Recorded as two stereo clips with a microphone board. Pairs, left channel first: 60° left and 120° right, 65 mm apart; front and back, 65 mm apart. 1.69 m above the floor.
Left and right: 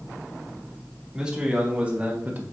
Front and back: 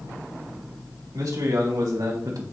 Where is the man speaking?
165° left, 3 m; by 2.4 s 175° right, 1.5 m.